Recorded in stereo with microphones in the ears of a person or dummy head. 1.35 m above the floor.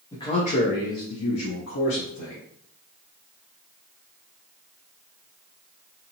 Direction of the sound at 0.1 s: 20° left (ahead or behind).